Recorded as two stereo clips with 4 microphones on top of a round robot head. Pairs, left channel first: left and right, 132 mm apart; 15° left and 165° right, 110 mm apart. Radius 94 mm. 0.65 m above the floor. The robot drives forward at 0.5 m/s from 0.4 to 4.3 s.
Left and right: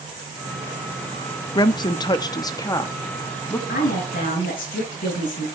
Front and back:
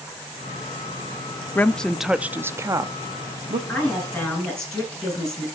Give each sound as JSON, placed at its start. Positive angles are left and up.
{"t": 1.6, "sound": "a woman speaking", "azimuth_deg": 70, "distance_m": 0.7}
{"t": 3.7, "sound": "a woman speaking", "azimuth_deg": 95, "distance_m": 7.5}